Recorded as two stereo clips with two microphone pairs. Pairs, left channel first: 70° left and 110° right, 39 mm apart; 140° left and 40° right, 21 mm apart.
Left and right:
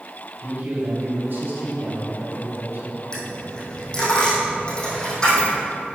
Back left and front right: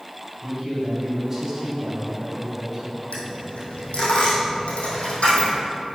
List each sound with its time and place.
0.4 s a man speaking: 115° right, 2.5 m
3.1 s a dropped coin: 140° left, 2.5 m